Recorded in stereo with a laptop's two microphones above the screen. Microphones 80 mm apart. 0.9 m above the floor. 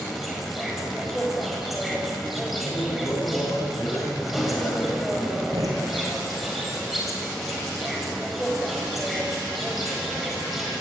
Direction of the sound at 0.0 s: Centre (ahead or behind).